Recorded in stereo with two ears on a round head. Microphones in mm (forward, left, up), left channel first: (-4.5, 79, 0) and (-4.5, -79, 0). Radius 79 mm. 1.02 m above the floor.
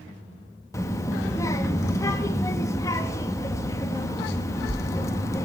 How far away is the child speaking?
About 0.6 m.